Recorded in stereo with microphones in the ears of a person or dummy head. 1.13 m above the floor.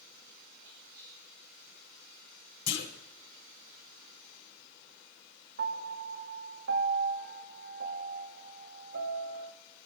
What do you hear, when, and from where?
0.6 s whispering: 80° right, 5 m
2.7 s a clunk: 70° left (ahead or behind), 3 m
5.6 s a piano: 50° right (ahead or behind), 1.0 m